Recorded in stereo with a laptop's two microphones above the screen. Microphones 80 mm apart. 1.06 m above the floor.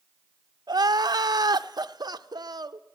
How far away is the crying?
About 0.5 m.